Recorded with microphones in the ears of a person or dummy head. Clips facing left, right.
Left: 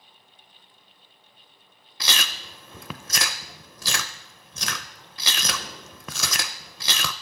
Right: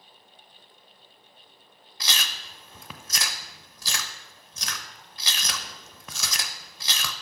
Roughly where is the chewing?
Left.